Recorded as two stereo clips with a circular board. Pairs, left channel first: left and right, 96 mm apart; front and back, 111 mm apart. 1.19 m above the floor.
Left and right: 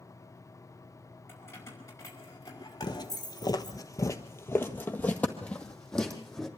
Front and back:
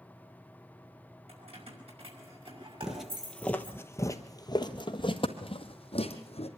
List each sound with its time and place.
1.3 s keys jangling: 155° left, 5.5 m; by 3.8 s 135° left, 6 m
2.8 s footsteps: 95° left, 1.6 m; by 6.5 s straight ahead, 2.5 m